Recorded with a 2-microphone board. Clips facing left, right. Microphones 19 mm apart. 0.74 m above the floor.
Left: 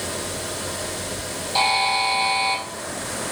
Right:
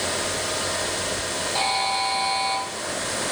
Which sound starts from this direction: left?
A buzzer, at 1.6 s.